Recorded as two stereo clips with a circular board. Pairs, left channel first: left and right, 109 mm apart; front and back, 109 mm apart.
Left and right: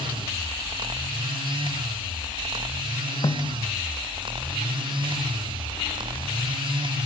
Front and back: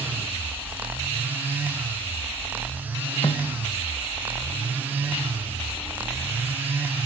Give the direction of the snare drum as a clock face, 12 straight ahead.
11 o'clock.